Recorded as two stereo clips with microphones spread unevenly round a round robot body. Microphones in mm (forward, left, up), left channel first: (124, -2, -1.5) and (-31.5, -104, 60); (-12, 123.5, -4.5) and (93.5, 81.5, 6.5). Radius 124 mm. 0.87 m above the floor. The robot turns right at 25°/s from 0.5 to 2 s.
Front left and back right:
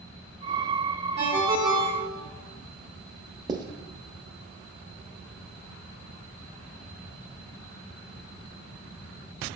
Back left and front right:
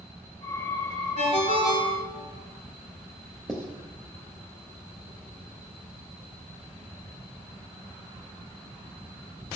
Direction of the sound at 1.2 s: 150° left.